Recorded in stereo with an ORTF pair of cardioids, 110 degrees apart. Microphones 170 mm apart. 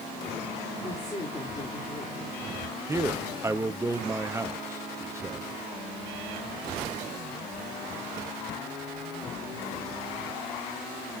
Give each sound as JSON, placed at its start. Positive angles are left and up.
{"t": 0.8, "sound": "a woman speaking", "azimuth_deg": 20, "distance_m": 5.0}
{"t": 2.9, "sound": "a man speaking", "azimuth_deg": -15, "distance_m": 1.1}